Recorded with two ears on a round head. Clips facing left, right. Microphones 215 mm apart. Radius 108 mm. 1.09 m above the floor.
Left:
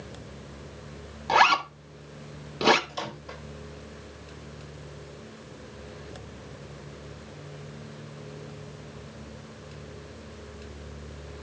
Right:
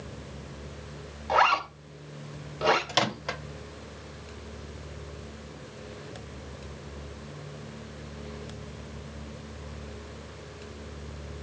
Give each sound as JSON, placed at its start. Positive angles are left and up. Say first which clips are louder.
{"t": 1.3, "sound": "a zipper", "louder": "left 2 dB", "side_deg": 55, "distance_m": 3.5}
{"t": 2.9, "sound": "a microwave", "louder": "right 7 dB", "side_deg": -85, "distance_m": 1.5}